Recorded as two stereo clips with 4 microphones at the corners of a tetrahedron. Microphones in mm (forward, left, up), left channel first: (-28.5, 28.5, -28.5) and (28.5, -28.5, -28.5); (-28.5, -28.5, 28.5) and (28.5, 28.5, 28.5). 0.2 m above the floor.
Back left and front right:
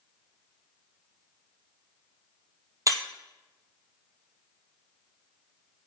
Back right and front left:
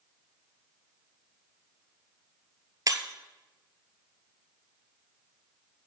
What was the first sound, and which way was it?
Breaking glass, straight ahead.